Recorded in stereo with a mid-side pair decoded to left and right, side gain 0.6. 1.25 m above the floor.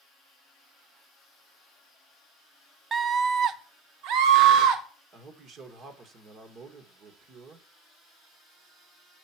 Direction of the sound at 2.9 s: 30° right.